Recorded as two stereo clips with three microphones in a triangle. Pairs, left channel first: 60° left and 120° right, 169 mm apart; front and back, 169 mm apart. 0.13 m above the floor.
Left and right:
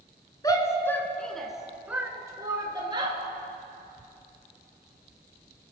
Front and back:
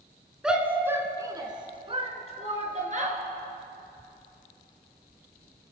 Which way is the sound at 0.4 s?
100° left.